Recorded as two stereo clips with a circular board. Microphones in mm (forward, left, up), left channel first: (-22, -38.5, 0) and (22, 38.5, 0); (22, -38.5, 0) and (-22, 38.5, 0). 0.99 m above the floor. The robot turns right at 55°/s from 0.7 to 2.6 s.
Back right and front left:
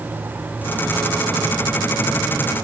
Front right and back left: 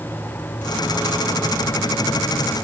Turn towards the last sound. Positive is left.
No sound to turn to.